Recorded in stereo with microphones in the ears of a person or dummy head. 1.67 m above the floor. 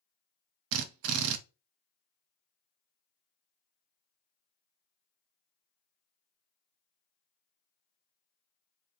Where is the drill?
75° right (ahead or behind), 0.6 m.